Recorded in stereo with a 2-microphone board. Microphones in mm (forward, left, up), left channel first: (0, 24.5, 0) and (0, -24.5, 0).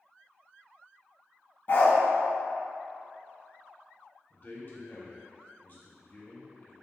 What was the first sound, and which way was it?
A dog barking, 50° left (ahead or behind).